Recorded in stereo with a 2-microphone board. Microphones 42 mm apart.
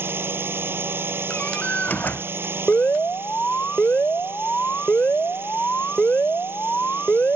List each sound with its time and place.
0.0 s a drone: 65° right (ahead or behind)
1.3 s a door slam: 45° left (ahead or behind)
2.7 s an alarm: 45° left (ahead or behind)